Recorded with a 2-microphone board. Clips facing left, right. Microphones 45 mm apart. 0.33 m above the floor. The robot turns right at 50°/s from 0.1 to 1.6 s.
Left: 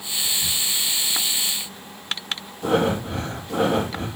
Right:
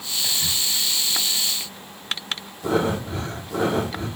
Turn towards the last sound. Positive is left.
turn(degrees=80)